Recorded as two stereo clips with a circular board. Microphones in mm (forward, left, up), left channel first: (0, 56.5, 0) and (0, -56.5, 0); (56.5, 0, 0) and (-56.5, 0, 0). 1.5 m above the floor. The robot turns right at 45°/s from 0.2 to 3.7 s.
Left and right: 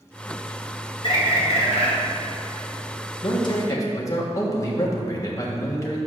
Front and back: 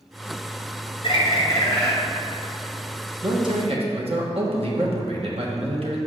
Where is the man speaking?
130° left, 1.3 m; by 6.0 s 150° left, 1.3 m.